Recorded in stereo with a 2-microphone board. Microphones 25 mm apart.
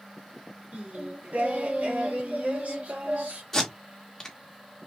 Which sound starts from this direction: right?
Singing, at 0.7 s.